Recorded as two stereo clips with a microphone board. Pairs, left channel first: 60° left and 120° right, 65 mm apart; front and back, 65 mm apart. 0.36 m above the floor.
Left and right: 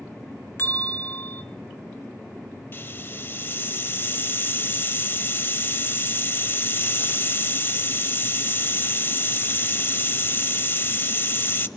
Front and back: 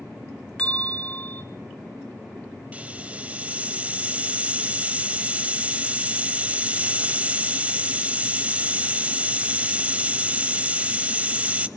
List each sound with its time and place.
0.6 s a bell: 55° left, 1.2 m
2.7 s a hiss: 115° left, 0.7 m